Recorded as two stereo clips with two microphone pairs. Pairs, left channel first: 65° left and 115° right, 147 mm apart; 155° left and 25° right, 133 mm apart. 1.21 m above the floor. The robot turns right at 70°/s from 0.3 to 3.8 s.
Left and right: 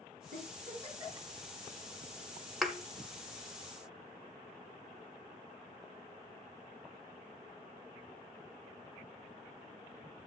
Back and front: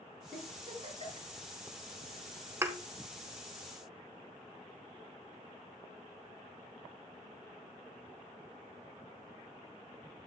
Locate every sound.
0.3 s a giggle: 110° right, 6 m; by 1.3 s 40° right, 6 m
2.6 s a thud: 25° right, 0.9 m; by 2.8 s 15° right, 0.9 m